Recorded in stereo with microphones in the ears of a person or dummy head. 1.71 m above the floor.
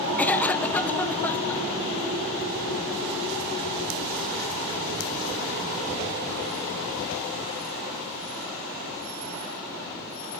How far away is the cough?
About 0.6 m.